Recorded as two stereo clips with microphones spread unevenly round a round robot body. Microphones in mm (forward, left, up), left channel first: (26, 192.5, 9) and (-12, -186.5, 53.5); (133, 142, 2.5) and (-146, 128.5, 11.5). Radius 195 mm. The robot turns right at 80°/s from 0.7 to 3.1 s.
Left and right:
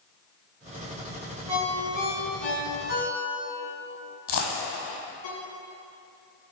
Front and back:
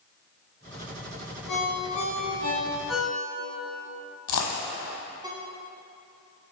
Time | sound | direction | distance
1.5 | a ringtone | 20° right | 1.9 m
4.3 | a dropped coin | 30° left | 1.4 m